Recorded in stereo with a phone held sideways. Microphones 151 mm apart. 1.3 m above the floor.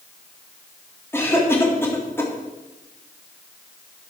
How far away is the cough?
About 3.5 m.